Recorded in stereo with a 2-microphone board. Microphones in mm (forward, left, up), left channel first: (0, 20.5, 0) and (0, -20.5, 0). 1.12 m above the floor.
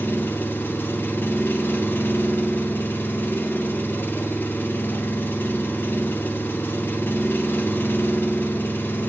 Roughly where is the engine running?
Left.